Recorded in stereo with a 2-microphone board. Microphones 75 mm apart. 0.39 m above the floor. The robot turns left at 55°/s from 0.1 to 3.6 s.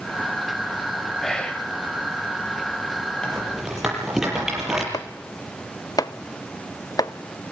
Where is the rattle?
15° left (ahead or behind), 7 m; by 4.8 s 5° right (ahead or behind), 7 m.